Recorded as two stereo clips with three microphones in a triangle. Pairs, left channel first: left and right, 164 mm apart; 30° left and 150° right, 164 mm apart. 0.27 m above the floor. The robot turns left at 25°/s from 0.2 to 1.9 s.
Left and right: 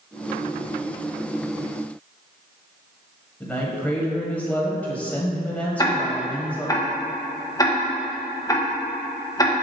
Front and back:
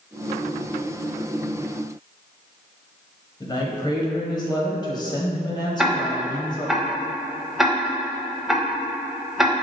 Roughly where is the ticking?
Behind left.